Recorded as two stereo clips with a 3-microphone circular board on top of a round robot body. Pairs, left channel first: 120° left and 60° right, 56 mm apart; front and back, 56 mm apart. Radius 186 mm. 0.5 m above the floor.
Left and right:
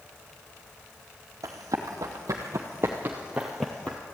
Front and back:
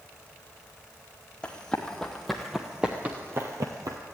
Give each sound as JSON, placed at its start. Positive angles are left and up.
{"t": 1.4, "sound": "running footsteps", "azimuth_deg": -70, "distance_m": 1.3}